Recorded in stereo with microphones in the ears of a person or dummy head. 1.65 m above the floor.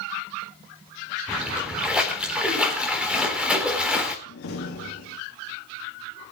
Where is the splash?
5° right (ahead or behind), 4 m.